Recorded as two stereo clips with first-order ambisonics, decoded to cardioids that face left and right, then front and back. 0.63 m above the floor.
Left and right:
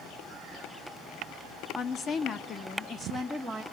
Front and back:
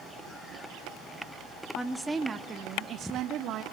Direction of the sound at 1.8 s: 75° left.